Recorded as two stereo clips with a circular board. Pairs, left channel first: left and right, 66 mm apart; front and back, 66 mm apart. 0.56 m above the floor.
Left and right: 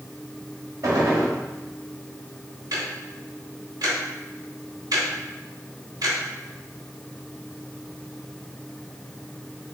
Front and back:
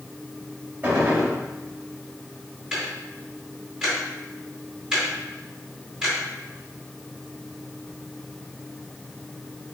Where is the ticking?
100° right, 1.6 m.